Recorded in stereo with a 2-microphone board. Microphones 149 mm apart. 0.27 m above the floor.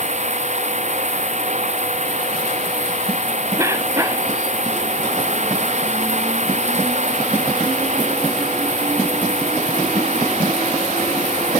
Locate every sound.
0.0 s running water: 55° right (ahead or behind)
3.6 s a cough: 20° right (ahead or behind)